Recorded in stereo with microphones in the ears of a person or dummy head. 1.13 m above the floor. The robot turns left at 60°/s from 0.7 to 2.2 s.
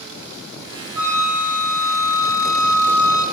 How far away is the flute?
About 1.3 m.